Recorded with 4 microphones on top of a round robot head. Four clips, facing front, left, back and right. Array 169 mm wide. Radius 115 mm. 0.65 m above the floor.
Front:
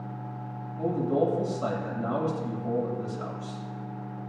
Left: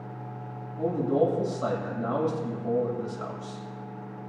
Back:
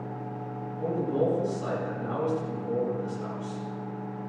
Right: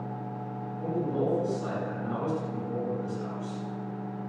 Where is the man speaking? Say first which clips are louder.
Left 5 dB, front 1 dB; 60° left, 6.5 m.